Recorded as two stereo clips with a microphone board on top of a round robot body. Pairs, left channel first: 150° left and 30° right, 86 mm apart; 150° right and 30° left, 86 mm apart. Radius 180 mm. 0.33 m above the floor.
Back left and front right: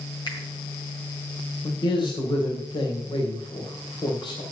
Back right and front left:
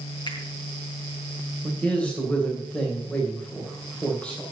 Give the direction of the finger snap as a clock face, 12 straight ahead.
6 o'clock.